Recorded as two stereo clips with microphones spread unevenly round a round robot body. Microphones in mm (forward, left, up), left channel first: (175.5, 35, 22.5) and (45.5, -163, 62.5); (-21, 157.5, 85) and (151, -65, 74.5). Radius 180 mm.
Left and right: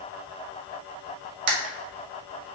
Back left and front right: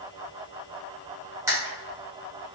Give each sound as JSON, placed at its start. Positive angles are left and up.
{"t": 1.5, "sound": "a camera shutter", "azimuth_deg": -135, "distance_m": 0.7}